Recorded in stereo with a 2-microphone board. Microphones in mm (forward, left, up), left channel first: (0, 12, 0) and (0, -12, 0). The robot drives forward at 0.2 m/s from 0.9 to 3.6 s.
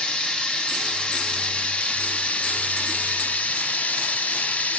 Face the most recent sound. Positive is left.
turn(degrees=70)  # may be behind; listen again after turning